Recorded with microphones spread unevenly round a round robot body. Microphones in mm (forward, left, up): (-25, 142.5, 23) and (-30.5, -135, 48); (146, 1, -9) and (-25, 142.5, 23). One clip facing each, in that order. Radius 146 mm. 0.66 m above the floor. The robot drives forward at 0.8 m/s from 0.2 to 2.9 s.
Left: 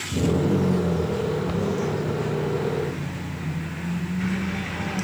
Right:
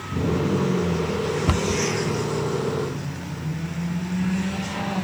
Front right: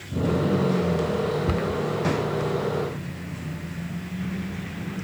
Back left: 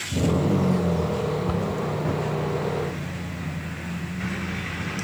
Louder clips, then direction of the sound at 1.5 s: Right 1 dB, front right 1 dB; 105° right.